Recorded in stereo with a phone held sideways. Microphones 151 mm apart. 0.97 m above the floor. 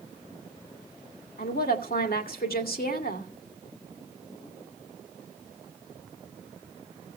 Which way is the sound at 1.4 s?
80° left.